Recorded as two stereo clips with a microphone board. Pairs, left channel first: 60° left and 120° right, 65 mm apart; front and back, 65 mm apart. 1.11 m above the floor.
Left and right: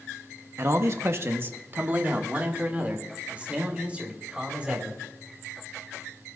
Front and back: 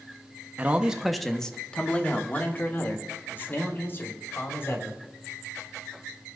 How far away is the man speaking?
About 0.9 m.